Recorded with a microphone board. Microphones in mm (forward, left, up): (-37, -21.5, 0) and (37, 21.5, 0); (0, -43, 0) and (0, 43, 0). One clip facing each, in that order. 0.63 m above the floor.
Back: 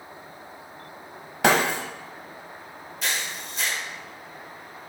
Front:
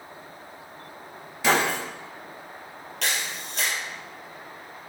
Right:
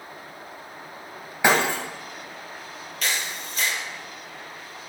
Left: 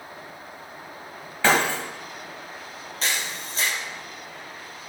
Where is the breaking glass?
165° right, 1.7 m.